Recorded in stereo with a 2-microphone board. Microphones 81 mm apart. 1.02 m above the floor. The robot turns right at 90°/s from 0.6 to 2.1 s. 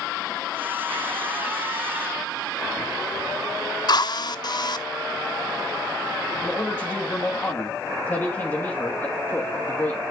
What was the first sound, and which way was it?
A drill, 55° left (ahead or behind).